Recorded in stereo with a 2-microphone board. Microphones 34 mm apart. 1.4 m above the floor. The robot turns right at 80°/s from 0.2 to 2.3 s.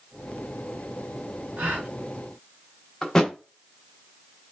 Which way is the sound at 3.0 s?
10° left (ahead or behind).